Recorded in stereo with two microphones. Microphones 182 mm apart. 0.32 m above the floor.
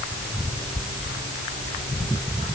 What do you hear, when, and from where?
Only background noise.